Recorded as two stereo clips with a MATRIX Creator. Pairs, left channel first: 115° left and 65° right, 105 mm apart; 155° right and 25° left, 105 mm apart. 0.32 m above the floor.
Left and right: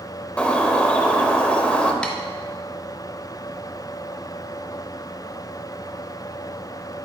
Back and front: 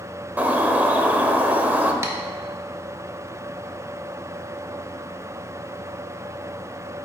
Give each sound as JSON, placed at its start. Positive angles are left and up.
{"t": 0.4, "sound": "a bird", "azimuth_deg": 55, "distance_m": 0.6}
{"t": 2.0, "sound": "tapping", "azimuth_deg": 40, "distance_m": 0.8}